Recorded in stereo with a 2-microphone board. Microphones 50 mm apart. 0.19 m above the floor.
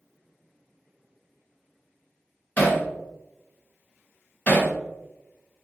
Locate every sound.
2.6 s hammering: 30° left (ahead or behind), 1.3 m